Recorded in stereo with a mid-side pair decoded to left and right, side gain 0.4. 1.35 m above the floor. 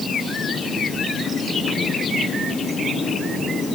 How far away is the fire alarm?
I don't hear a fire alarm.